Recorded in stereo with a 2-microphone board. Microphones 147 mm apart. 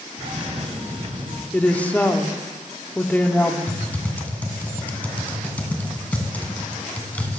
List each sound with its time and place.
0.2 s a cough: 45° right (ahead or behind), 2 m
1.5 s a woman speaking: 10° left (ahead or behind), 0.8 m
3.7 s typing on a keyboard: 10° left (ahead or behind), 1.5 m